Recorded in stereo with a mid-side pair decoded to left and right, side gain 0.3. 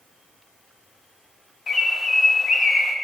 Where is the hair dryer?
I don't hear a hair dryer.